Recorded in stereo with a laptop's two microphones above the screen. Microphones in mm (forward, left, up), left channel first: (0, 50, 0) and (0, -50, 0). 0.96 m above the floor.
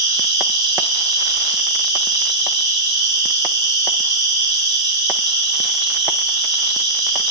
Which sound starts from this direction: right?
An insect, at 0.0 s.